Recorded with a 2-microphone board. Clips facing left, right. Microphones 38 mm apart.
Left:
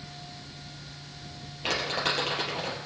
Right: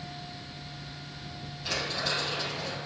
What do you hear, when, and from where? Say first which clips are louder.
1.6 s crumpling: left 3 dB; 60° left (ahead or behind), 4.5 m